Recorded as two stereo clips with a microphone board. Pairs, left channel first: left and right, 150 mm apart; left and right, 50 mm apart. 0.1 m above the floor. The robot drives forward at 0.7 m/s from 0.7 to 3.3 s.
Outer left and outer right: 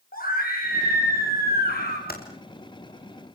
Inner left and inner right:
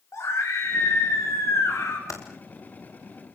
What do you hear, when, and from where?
0.1 s a scream: 75° left (ahead or behind), 10 m; by 2.0 s 80° left, 9.5 m
2.1 s typing on a keyboard: 85° left, 6 m